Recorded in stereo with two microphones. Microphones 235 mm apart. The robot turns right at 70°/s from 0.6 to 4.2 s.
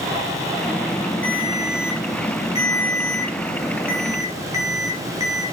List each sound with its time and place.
1.2 s a ringtone: 60° left, 4.5 m; by 5.4 s 95° right, 4.5 m